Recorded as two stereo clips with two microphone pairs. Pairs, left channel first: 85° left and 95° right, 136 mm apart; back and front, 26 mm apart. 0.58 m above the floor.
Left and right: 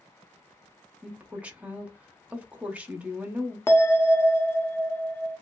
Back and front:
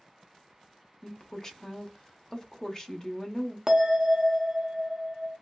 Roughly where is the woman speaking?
Behind right.